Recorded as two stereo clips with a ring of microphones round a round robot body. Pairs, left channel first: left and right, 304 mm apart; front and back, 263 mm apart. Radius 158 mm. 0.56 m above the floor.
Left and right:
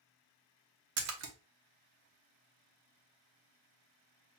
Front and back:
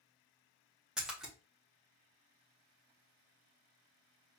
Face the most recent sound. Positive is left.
turn(degrees=-90)